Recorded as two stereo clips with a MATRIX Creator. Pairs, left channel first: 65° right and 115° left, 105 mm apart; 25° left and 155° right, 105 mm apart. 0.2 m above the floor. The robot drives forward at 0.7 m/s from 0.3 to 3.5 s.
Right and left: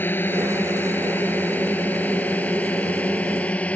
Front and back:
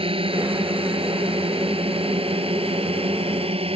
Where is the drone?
135° right; by 3.8 s 145° right.